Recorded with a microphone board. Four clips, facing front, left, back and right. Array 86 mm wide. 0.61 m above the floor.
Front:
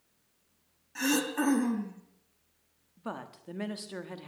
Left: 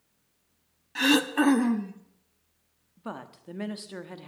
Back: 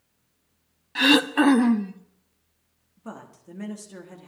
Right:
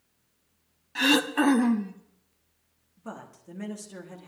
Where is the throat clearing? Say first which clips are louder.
Even, back 10 dB; straight behind, 0.8 m.